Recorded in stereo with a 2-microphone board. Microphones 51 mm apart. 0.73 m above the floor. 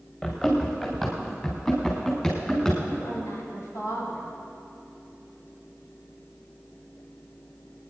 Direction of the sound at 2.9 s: 80° left.